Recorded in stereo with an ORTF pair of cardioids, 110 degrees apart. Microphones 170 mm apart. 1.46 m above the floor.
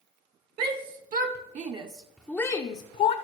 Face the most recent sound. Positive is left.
turn(degrees=55)